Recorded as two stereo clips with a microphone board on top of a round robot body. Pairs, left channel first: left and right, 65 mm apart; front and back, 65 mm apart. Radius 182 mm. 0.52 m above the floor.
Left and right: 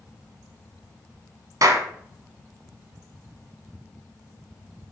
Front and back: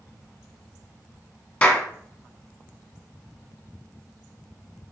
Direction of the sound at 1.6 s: 60° right.